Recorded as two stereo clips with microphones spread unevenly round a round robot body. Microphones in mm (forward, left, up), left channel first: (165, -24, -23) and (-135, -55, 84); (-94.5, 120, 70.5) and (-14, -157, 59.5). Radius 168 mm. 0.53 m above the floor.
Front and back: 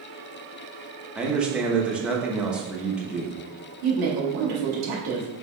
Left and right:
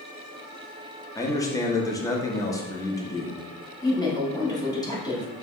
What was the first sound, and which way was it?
A man speaking, 40° left.